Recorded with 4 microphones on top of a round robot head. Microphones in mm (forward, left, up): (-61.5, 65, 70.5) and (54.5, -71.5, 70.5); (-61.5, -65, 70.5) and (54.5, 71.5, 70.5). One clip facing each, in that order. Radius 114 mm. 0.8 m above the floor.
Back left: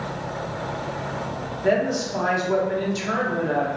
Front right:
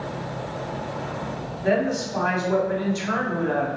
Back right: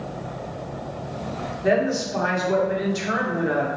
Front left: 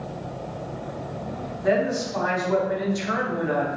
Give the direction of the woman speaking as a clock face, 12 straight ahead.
6 o'clock.